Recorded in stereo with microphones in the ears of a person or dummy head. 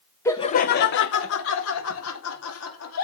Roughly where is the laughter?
Centre.